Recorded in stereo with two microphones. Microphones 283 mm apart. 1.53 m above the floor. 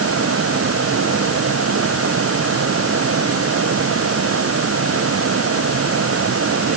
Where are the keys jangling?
I don't hear keys jangling.